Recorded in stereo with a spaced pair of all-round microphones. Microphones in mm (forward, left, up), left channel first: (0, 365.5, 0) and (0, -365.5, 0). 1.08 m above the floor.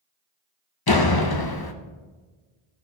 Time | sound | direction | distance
0.9 | a door slam | 35° left (ahead or behind) | 0.7 m